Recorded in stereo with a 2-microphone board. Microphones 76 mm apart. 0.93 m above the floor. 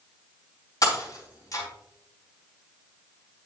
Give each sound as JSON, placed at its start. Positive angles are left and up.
{"t": 0.8, "sound": "breaking glass", "side_deg": 50, "distance_m": 4.0}